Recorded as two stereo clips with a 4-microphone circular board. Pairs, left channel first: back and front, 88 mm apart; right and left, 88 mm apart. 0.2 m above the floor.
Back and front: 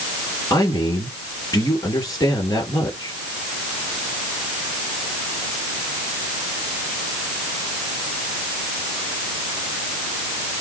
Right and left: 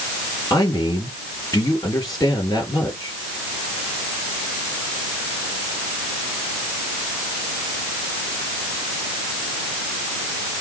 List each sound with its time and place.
0.5 s a man speaking: 130° right, 3.5 m